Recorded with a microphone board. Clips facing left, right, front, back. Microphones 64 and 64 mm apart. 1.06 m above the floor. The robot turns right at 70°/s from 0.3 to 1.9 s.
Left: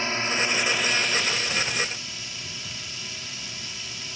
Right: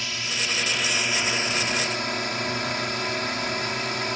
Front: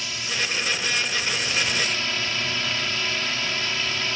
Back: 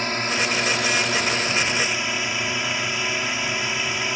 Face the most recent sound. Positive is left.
turn(degrees=-105)